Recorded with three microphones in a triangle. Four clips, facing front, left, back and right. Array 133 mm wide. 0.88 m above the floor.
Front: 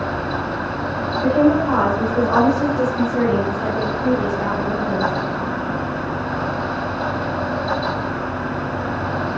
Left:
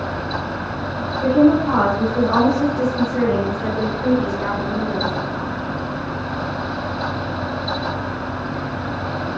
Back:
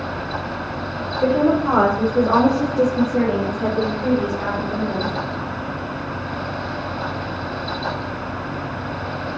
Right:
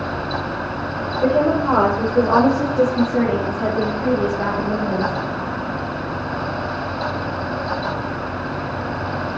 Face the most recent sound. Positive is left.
turn(degrees=-80)